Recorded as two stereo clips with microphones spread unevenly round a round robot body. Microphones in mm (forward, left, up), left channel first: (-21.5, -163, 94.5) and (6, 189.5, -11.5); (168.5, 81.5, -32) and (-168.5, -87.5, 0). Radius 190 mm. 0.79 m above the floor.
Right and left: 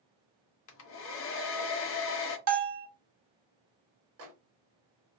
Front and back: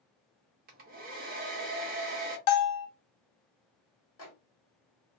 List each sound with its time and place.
0.7 s a hair dryer: 125° right, 0.5 m
2.5 s a bell: 40° left, 0.7 m
4.2 s a microwave: 70° left, 1.0 m